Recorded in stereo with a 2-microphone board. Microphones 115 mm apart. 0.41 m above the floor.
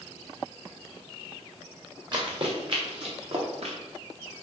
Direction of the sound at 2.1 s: 40° right (ahead or behind).